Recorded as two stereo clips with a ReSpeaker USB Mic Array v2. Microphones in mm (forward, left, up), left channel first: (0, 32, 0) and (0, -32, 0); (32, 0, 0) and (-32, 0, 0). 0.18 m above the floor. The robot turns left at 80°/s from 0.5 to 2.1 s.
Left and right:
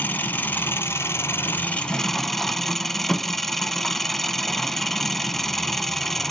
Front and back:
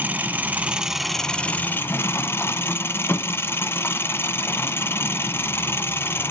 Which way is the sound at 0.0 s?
135° left.